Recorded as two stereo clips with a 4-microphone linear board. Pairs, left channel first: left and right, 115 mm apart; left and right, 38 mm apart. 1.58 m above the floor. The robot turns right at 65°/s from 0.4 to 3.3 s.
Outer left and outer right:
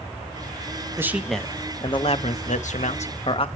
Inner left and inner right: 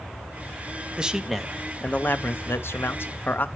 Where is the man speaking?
20° right, 0.7 m; by 3.5 s 130° left, 0.7 m.